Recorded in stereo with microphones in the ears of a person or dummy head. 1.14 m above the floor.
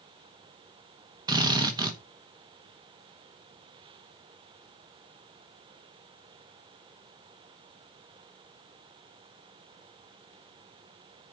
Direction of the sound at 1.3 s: 25° right (ahead or behind).